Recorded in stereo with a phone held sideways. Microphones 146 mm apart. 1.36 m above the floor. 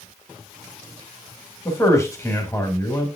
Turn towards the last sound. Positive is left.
turn(degrees=20)  # may be behind; listen again after turning